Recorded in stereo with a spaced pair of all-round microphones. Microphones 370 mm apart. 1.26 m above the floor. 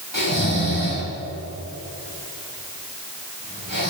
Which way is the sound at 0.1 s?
60° left (ahead or behind).